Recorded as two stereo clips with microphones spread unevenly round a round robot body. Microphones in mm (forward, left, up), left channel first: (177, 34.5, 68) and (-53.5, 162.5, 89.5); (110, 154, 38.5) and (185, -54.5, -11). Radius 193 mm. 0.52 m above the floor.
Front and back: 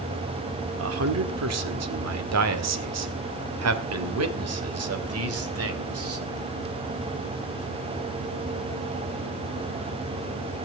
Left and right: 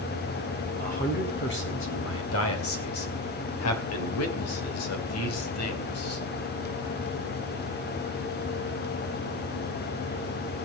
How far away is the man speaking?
About 1.9 m.